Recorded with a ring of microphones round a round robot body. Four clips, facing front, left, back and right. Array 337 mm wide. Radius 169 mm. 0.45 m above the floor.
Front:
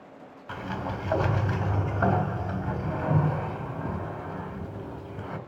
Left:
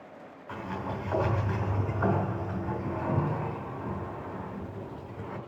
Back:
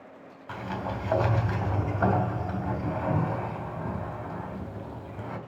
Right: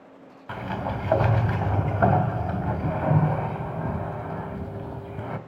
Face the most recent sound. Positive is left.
turn(degrees=-85)